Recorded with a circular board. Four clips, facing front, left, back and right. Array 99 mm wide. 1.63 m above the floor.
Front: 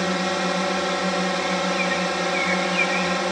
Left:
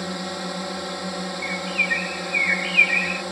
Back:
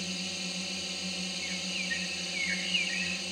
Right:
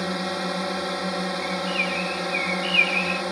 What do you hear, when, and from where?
0.0 s a drone: 10° right
1.4 s a bird: 75° left